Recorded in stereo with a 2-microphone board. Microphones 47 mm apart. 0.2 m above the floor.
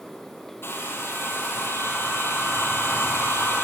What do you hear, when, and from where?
0.6 s a hair dryer: 55° left (ahead or behind), 1.5 m